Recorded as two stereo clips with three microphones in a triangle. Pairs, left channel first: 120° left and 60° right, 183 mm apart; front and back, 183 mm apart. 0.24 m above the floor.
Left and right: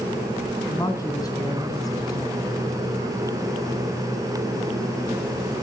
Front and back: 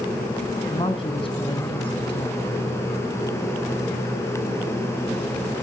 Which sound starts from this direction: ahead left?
A woman speaking, at 0.7 s.